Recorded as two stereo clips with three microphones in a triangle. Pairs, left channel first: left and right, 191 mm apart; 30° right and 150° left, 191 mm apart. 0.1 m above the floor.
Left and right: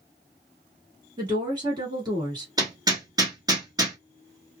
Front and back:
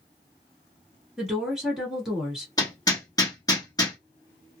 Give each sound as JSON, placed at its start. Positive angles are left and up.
{"t": 1.2, "sound": "a woman speaking", "azimuth_deg": -125, "distance_m": 1.6}
{"t": 2.6, "sound": "hammering", "azimuth_deg": -65, "distance_m": 1.1}